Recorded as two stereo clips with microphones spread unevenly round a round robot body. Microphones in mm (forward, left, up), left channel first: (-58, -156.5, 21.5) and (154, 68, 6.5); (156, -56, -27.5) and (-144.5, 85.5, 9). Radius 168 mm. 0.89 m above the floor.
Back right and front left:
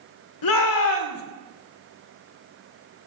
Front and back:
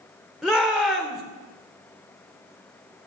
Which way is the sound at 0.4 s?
115° right.